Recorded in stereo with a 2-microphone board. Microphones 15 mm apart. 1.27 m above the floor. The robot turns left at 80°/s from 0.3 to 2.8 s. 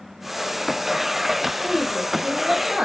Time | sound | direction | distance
1.6 | a woman speaking | 25° right | 3 m